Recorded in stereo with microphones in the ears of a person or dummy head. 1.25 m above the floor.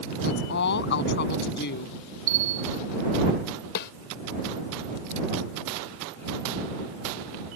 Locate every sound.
0.2 s a woman speaking: 70° left (ahead or behind)
2.3 s a bell: 50° right (ahead or behind)
3.8 s a snare drum: 55° left (ahead or behind)